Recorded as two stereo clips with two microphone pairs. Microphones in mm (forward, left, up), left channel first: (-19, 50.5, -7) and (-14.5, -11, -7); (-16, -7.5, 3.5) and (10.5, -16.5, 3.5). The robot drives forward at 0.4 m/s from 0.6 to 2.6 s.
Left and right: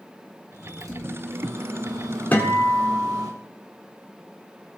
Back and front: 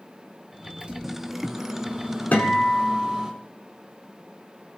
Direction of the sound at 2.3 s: 155° left.